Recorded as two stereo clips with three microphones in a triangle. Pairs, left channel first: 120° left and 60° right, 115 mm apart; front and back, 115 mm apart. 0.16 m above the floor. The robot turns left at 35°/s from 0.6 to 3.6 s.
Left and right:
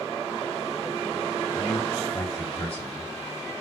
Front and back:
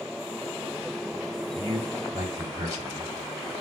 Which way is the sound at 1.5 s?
130° right.